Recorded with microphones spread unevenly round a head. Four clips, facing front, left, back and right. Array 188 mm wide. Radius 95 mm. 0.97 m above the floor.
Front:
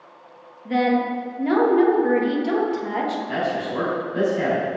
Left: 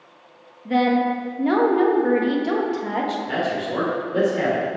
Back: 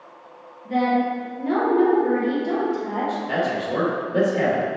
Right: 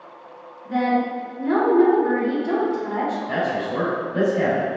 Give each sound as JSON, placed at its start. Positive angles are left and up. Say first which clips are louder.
{"t": 0.7, "sound": "a woman speaking", "louder": "left 2 dB, even", "azimuth_deg": 65, "distance_m": 1.4}
{"t": 3.3, "sound": "a man speaking", "louder": "right 1 dB, back 1 dB", "azimuth_deg": 135, "distance_m": 2.5}